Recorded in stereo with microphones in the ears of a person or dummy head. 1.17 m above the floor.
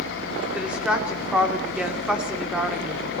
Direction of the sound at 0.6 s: 5° right (ahead or behind).